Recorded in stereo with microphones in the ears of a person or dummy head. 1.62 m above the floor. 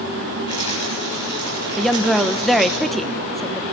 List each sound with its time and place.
0.5 s a rattle: 35° left (ahead or behind), 6.5 m
1.8 s a woman speaking: centre (ahead or behind), 1.1 m